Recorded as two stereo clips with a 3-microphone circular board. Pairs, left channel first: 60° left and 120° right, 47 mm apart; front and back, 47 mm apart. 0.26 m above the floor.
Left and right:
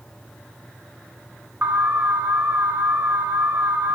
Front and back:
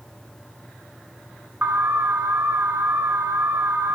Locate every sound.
1.6 s an alarm: 145° right, 3.5 m